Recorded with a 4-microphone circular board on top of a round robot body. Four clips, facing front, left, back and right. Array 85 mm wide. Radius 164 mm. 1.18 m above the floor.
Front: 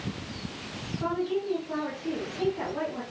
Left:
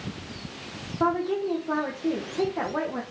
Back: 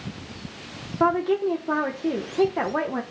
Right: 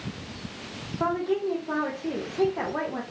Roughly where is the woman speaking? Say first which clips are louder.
Left 1 dB, back 8 dB; behind.